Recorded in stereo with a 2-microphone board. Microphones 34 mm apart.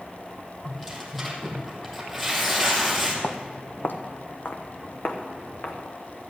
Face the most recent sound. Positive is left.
turn(degrees=80)